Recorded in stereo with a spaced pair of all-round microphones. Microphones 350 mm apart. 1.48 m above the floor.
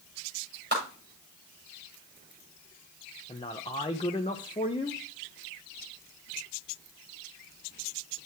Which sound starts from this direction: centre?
A man speaking, at 3.3 s.